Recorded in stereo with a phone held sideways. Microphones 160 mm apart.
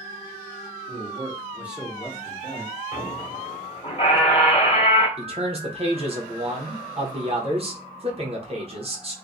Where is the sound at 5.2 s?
40° right (ahead or behind), 0.8 m.